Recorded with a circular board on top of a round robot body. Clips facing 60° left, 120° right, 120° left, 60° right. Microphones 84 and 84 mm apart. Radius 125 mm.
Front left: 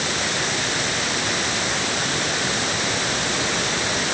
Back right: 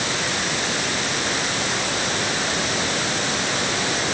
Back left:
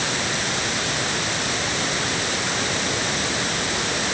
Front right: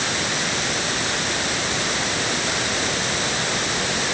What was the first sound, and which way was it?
Only background noise.